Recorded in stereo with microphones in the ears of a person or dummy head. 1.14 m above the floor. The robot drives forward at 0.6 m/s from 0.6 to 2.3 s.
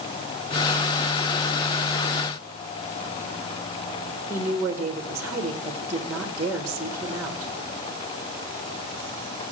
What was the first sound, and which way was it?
A woman speaking, 20° right (ahead or behind).